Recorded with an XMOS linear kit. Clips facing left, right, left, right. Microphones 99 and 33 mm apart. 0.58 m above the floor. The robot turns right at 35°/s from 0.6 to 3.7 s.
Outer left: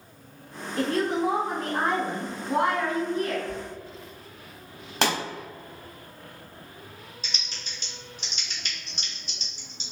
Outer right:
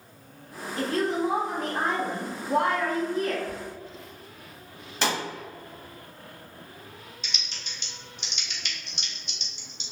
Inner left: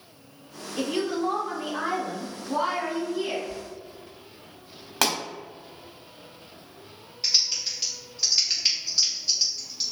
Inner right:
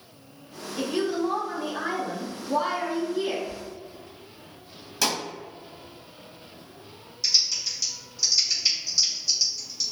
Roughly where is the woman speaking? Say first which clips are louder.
Outer left 1 dB, inner right 1 dB; left.